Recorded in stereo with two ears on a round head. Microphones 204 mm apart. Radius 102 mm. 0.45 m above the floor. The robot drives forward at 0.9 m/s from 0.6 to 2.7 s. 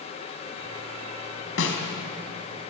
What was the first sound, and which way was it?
A snare drum, 60° left (ahead or behind).